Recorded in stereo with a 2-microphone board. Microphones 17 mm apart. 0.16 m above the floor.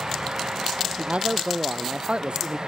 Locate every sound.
1.0 s a man speaking: 70° right (ahead or behind)